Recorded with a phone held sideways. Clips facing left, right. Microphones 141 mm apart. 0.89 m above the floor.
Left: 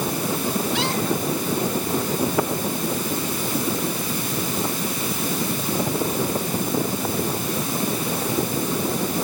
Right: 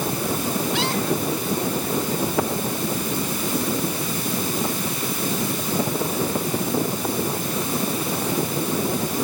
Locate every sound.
Only background noise.